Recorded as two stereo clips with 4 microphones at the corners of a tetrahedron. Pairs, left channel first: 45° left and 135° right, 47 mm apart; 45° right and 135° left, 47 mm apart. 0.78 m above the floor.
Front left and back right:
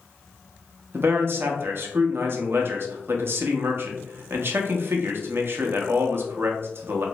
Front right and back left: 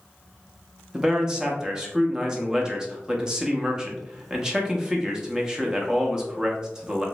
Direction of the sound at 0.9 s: 155° right.